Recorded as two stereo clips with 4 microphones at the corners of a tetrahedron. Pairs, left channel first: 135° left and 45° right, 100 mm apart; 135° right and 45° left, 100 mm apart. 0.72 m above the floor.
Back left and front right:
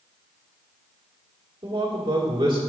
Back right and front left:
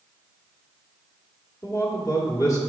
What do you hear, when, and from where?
1.6 s a man speaking: 85° right, 1.6 m